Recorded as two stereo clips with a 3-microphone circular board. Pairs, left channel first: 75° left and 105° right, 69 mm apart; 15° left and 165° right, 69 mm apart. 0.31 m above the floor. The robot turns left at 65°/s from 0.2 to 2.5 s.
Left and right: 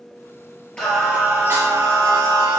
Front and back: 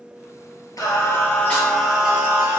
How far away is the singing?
About 3 m.